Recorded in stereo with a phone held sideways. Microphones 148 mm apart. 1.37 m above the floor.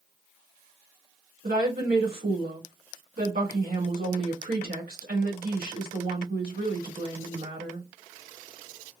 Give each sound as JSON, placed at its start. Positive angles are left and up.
{"t": 1.4, "sound": "a woman speaking", "side_deg": -85, "distance_m": 2.5}